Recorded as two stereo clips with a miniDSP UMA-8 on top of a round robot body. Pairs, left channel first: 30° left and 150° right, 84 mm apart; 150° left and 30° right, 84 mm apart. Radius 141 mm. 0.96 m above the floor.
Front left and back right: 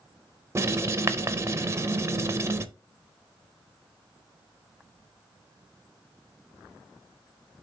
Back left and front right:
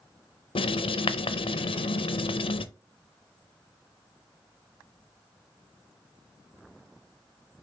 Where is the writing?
150° left, 0.7 m.